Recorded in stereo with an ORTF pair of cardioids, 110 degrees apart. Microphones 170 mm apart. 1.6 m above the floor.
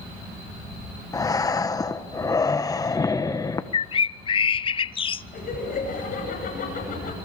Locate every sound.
1.1 s breathing: 20° left, 1.3 m
3.7 s a bird: 30° left, 0.6 m
5.3 s laughter: 55° left, 9.5 m